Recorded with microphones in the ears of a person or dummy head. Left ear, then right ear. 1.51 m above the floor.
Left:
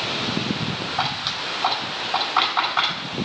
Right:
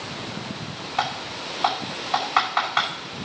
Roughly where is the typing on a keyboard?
Right.